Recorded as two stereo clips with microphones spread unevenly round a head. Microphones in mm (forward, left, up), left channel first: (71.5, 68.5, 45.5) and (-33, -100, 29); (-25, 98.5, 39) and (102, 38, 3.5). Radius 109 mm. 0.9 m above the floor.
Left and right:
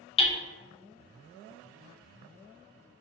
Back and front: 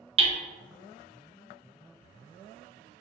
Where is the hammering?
5° right, 0.6 m.